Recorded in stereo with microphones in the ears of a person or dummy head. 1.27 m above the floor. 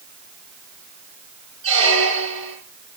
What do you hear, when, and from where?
1.6 s a squeak: 30° right (ahead or behind), 4.5 m